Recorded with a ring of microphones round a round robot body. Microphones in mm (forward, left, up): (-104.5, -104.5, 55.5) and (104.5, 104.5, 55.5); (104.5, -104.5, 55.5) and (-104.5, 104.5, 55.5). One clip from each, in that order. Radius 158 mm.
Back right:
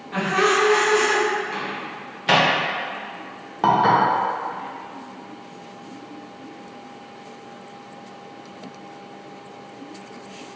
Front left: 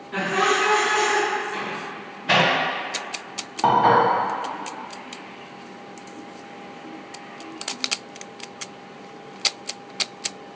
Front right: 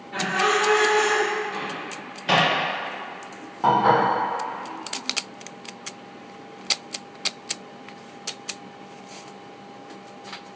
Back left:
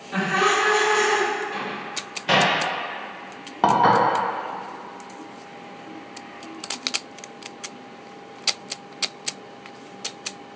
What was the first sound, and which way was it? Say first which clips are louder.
Laughter: back right 2 dB, back left 1 dB; 155° left.